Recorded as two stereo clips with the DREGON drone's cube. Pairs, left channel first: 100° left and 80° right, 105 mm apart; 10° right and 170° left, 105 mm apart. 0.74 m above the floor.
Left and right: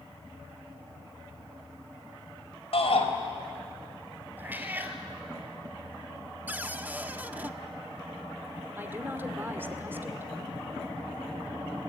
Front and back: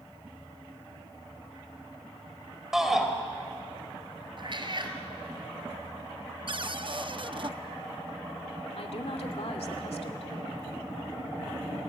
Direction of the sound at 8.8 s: 10° right.